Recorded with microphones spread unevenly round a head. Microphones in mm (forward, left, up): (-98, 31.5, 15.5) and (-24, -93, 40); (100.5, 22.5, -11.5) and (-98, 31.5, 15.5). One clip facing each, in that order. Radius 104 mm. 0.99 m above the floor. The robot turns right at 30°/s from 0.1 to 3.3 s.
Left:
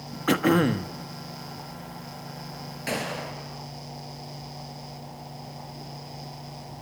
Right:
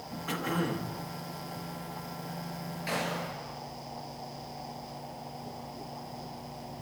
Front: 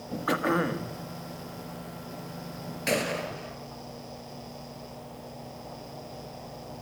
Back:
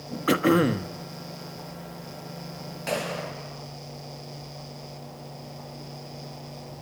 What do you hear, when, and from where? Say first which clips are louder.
0.3 s throat clearing: left 11 dB, back 7 dB; 125° left, 1.3 m; by 0.9 s 145° left, 1.3 m
2.9 s a gunshot: left 3 dB, front 1 dB; 60° left, 4 m; by 3.6 s 75° left, 4 m